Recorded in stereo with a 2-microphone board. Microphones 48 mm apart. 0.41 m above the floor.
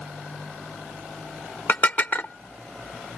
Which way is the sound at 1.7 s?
40° left (ahead or behind).